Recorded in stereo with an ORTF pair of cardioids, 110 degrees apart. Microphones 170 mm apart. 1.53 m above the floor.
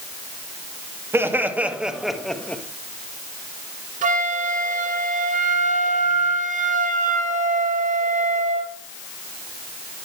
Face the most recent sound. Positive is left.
turn(degrees=-50)